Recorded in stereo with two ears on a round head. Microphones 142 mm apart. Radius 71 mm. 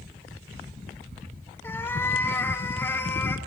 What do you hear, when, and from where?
1.6 s a cat meowing: 15° left (ahead or behind), 1.4 m